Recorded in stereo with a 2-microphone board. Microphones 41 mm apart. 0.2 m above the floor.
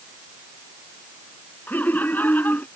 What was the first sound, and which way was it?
Laughter, 50° left (ahead or behind).